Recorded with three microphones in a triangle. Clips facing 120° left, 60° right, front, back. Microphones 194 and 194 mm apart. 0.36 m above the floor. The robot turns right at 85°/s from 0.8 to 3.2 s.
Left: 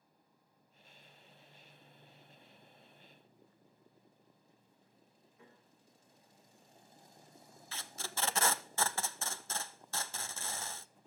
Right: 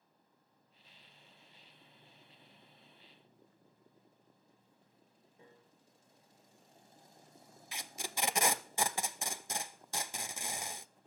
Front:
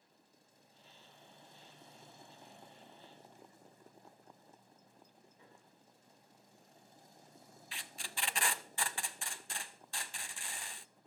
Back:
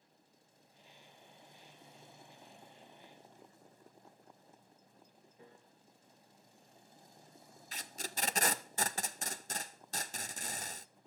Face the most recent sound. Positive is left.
turn(degrees=-135)